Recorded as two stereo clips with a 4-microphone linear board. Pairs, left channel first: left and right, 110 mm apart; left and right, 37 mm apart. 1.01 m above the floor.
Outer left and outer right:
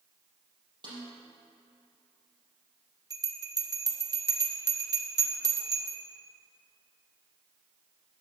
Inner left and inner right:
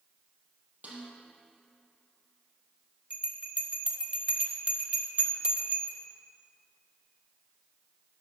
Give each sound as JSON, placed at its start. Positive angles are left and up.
{"t": 0.8, "sound": "a snare drum", "side_deg": -45, "distance_m": 4.5}
{"t": 3.1, "sound": "a bell", "side_deg": -35, "distance_m": 1.0}